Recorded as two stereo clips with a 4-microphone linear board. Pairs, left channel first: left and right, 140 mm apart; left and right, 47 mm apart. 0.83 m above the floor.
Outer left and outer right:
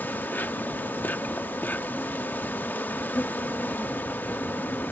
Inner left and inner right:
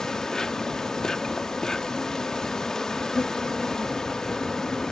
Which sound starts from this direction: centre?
An insect, at 0.0 s.